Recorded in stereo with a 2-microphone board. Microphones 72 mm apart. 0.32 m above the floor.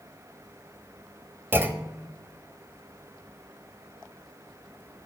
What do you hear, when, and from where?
1.5 s a clunk: 30° right (ahead or behind), 0.8 m